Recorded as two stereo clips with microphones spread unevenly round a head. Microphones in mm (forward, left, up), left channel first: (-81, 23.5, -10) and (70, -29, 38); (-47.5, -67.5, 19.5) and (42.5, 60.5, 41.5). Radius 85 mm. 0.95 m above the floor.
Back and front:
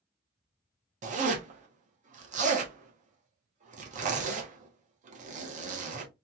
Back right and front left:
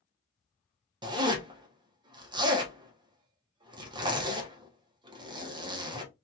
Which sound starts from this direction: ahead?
A zipper, at 1.0 s.